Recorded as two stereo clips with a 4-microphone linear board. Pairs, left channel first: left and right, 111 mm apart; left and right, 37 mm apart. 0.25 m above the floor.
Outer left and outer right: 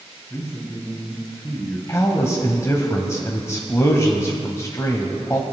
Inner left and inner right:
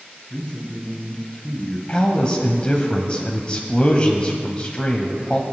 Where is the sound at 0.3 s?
25° left (ahead or behind), 1.7 m.